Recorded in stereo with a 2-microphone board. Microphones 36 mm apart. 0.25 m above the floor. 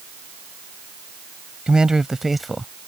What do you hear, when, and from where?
1.7 s a man speaking: 25° right (ahead or behind); by 2.7 s 10° left (ahead or behind)